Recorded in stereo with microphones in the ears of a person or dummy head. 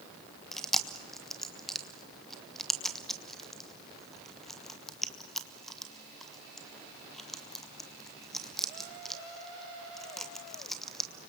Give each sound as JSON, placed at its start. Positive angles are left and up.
{"t": 0.5, "sound": "chewing", "side_deg": 5, "distance_m": 1.2}